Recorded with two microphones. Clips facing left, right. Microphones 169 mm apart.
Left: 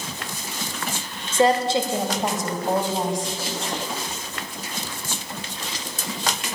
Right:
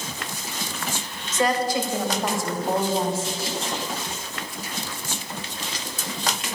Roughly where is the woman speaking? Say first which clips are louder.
Left 4 dB; left.